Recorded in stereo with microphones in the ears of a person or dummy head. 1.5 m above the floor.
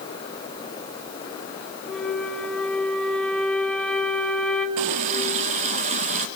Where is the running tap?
30° right (ahead or behind), 0.7 m.